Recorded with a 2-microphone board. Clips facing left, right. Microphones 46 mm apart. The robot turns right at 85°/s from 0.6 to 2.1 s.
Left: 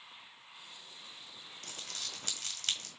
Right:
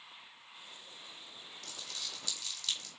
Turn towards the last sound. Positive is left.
turn(degrees=45)  # may be behind; listen again after turning